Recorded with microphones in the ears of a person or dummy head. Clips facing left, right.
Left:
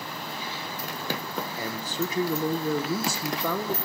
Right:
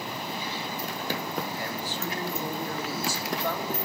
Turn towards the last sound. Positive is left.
turn(degrees=75)  # may be behind; listen again after turning